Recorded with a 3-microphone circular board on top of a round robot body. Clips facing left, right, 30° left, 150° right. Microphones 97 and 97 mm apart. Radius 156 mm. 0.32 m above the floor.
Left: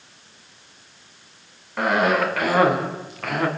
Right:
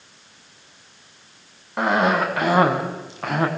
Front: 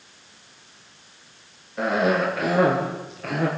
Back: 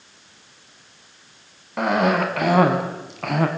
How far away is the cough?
About 4.5 m.